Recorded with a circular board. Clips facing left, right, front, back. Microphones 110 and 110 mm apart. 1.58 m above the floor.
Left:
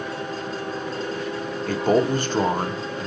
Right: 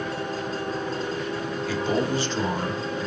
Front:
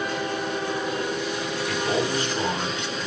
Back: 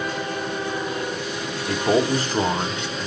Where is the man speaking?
130° left, 0.8 m.